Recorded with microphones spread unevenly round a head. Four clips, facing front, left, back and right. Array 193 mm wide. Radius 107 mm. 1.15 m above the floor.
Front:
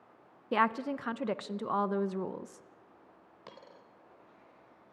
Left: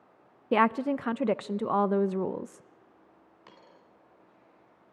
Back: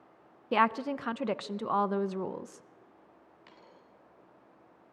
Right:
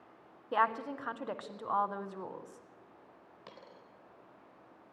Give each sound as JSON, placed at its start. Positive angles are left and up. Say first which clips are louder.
{"t": 0.5, "sound": "a woman speaking", "louder": "left 7 dB, back 2 dB", "azimuth_deg": 85, "distance_m": 0.6}
{"t": 3.5, "sound": "a dropped coin", "louder": "right 2 dB, front 6 dB", "azimuth_deg": -15, "distance_m": 2.5}